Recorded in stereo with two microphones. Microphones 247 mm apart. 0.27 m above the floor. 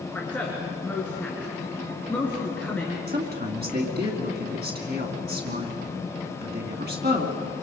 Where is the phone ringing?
No phone ringing in this recording.